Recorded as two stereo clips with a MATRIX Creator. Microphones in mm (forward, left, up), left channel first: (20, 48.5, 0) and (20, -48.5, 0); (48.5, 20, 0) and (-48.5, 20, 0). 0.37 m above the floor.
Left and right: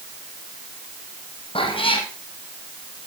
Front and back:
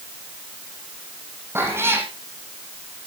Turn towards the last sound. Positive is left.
turn(degrees=115)